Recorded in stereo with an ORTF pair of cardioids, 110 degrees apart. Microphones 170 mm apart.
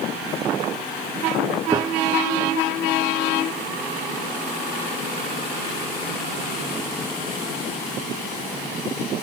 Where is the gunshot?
20° right, 1.2 m.